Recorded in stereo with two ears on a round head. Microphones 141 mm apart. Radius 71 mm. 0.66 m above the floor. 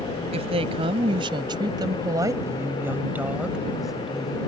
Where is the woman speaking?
40° right (ahead or behind); by 4.5 s 5° left (ahead or behind).